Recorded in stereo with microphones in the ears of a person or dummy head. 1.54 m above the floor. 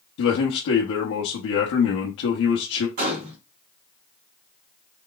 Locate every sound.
0.2 s a man speaking: 80° left, 0.9 m
3.0 s a gunshot: 40° right (ahead or behind), 1.6 m